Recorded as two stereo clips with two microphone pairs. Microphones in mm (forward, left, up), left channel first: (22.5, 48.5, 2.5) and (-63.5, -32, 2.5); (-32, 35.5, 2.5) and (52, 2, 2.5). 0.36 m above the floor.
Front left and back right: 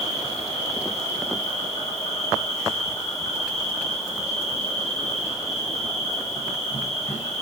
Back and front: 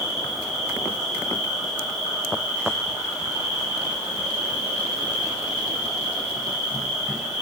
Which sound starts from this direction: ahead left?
An insect, at 0.0 s.